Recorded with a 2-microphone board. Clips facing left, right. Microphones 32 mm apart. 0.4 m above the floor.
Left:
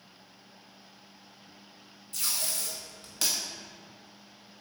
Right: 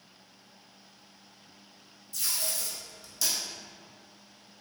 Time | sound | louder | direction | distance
2.1 | tape being pulled | even | 55° left (ahead or behind) | 0.6 m